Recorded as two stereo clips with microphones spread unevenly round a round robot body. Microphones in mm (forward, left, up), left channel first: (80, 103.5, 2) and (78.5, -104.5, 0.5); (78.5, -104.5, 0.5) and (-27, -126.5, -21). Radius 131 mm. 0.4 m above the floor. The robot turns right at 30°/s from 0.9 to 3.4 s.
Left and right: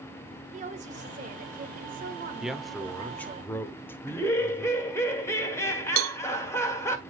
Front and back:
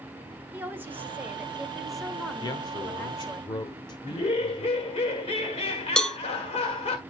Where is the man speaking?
10° right, 0.9 m; by 5.0 s 20° left, 0.9 m.